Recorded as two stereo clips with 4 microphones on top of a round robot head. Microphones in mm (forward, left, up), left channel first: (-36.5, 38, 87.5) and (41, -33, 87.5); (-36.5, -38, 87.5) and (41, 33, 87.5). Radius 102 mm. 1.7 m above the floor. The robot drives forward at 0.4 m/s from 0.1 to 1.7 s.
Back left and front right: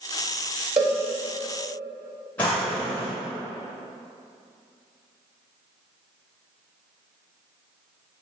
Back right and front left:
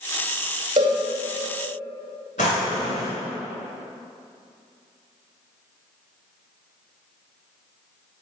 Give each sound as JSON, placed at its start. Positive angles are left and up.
{"t": 0.8, "sound": "a cowbell", "azimuth_deg": -5, "distance_m": 0.7}
{"t": 2.4, "sound": "a drawer", "azimuth_deg": -150, "distance_m": 1.2}